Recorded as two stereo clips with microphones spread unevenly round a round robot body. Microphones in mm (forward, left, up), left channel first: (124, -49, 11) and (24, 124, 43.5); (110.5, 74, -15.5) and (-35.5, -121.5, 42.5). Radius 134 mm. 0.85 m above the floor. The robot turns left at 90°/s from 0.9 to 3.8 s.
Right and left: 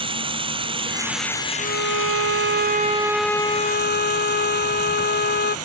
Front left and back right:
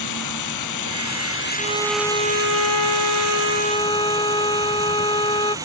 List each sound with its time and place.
0.0 s running water: 55° left; by 5.7 s 155° left
1.6 s a violin: straight behind; by 5.5 s 20° right